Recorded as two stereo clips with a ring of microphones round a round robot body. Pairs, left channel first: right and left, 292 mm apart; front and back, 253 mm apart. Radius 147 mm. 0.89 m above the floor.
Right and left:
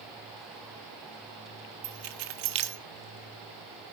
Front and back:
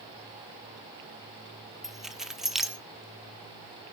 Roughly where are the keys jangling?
Left.